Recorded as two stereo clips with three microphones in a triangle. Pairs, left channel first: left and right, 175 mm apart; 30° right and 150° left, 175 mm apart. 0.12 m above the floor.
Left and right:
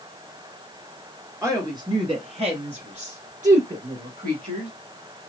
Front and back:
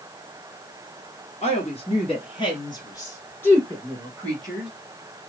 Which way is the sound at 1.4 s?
30° right.